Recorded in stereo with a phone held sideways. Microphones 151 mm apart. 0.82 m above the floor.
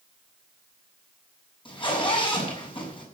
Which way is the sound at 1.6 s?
35° left (ahead or behind).